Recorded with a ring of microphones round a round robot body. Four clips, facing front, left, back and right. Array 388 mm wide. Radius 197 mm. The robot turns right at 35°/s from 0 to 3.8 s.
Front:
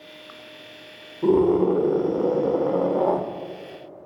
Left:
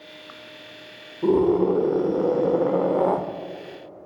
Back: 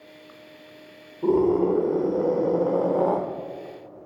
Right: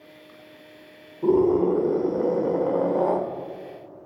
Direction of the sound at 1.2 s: 20° left.